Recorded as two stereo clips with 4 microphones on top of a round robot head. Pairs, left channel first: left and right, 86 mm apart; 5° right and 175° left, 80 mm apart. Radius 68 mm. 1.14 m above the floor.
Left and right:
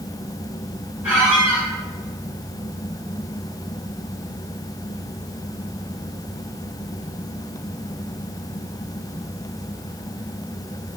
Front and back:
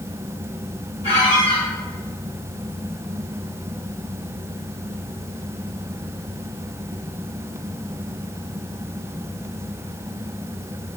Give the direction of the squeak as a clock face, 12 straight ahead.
12 o'clock.